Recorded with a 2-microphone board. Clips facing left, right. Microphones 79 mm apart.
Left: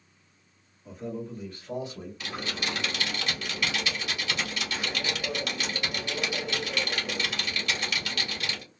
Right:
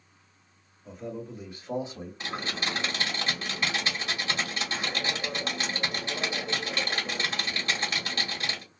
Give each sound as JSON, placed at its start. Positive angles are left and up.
{"t": 0.8, "sound": "a man speaking", "side_deg": 5, "distance_m": 1.4}
{"t": 2.2, "sound": "typing on a keyboard", "side_deg": -30, "distance_m": 1.2}